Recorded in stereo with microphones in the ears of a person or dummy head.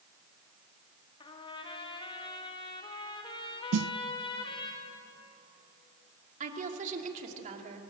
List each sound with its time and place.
1.2 s a trumpet: 25° left (ahead or behind), 1.7 m
3.7 s a snare drum: 80° right, 0.5 m
6.4 s a woman speaking: 45° right (ahead or behind), 2.5 m